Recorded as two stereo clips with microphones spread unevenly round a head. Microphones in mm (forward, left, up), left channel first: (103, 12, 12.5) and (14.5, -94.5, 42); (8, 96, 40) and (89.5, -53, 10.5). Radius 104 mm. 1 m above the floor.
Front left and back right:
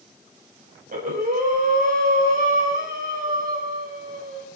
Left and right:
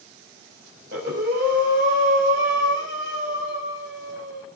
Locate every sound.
0.9 s breathing: 105° right, 6 m